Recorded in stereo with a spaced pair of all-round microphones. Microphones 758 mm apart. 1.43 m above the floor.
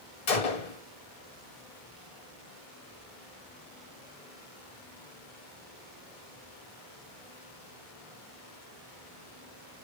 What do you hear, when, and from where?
0.3 s a gunshot: 55° left (ahead or behind), 0.8 m